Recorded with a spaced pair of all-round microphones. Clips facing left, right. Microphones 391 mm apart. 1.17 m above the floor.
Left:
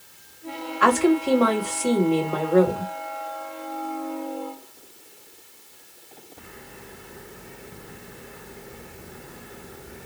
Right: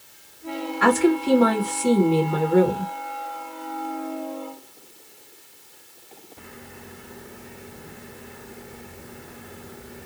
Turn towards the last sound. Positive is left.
turn(degrees=-35)  # may be behind; listen again after turning